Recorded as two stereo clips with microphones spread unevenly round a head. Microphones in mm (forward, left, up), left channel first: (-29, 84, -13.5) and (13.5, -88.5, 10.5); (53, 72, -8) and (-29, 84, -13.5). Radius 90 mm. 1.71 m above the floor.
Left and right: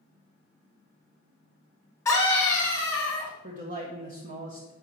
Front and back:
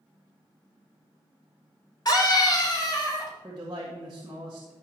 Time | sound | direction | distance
2.0 | a scream | 30° left | 3.5 m
3.4 | a man speaking | 120° right | 1.4 m